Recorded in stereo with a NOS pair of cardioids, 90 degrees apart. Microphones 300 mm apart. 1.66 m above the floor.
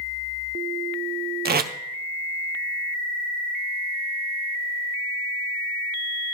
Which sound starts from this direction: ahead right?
Tape being pulled, at 1.4 s.